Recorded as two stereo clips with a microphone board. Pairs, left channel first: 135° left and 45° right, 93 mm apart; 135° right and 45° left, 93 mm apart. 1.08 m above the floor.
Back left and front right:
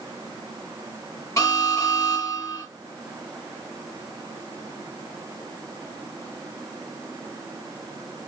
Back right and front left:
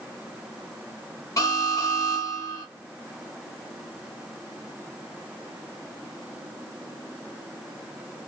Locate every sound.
1.4 s an alarm: straight behind, 1.9 m